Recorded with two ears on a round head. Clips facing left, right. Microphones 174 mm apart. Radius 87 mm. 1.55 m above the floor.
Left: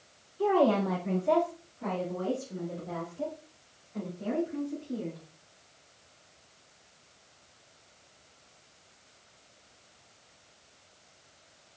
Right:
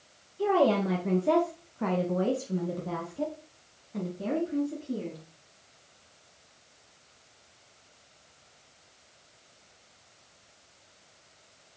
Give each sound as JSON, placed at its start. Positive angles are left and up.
{"t": 0.4, "sound": "a woman speaking", "side_deg": -20, "distance_m": 1.7}